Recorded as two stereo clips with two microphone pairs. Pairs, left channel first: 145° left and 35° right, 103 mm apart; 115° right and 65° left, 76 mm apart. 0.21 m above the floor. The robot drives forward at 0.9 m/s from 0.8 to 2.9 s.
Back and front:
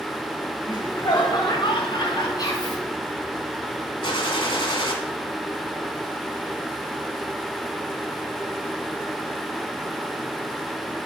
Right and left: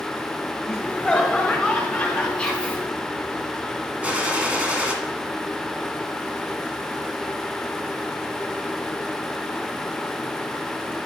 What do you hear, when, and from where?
0.7 s laughter: 150° left, 1.7 m; by 2.3 s 165° left, 2.5 m
2.4 s whispering: 175° left, 1.6 m
4.0 s a gunshot: 135° left, 1.2 m